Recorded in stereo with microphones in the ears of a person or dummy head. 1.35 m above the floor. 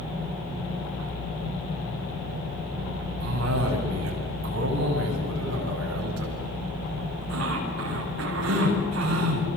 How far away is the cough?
About 8 m.